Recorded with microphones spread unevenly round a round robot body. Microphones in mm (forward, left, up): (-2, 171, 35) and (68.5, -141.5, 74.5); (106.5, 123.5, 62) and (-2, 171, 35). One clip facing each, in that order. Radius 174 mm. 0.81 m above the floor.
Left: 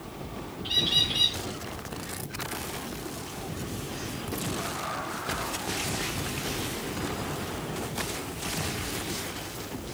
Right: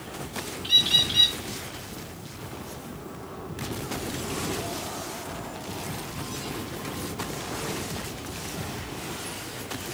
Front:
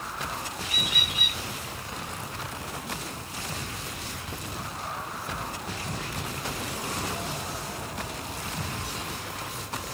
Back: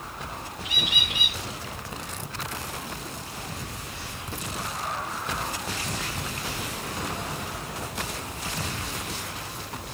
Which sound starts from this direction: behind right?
A bird, at 0.6 s.